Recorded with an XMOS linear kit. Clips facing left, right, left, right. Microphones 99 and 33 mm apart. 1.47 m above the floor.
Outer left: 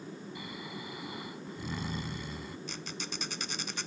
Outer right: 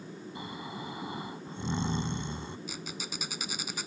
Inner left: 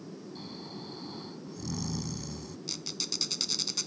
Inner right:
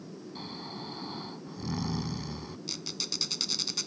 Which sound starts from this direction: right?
Snoring, at 0.3 s.